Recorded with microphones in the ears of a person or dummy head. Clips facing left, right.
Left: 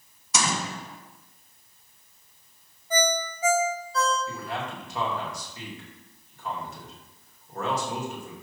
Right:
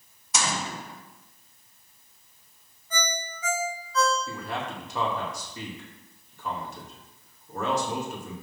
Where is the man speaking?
85° right, 2.5 m.